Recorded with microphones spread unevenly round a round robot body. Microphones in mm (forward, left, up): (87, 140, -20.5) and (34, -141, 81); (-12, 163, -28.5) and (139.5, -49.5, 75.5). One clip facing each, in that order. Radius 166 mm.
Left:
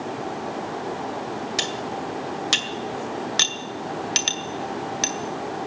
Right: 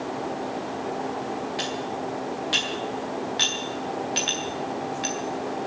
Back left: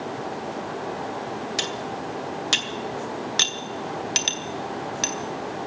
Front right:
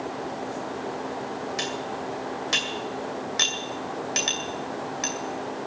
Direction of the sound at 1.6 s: 95° left.